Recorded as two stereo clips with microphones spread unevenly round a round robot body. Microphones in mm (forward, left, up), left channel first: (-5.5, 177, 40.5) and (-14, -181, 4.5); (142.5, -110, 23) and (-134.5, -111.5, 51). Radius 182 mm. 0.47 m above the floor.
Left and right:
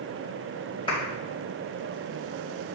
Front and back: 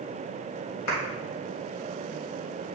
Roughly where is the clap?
Ahead.